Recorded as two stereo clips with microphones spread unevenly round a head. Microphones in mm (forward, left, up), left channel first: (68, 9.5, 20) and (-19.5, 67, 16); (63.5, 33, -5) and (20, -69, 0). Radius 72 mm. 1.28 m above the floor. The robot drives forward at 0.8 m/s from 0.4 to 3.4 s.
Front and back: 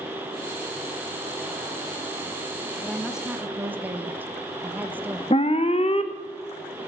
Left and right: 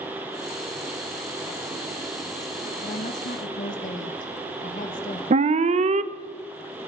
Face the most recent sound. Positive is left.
turn(degrees=-90)